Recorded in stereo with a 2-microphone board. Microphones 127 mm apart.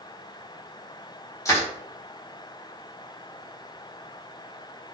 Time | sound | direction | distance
1.4 | crushing | 25° left (ahead or behind) | 0.9 m